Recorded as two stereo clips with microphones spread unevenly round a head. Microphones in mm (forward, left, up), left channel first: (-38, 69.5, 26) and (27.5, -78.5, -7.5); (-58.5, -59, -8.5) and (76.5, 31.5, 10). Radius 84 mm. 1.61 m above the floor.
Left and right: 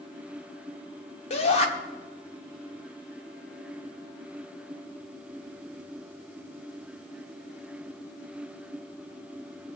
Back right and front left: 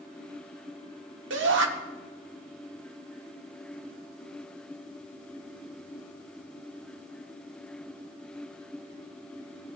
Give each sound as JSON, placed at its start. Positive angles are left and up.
{"t": 1.3, "sound": "a shout", "azimuth_deg": 60, "distance_m": 1.1}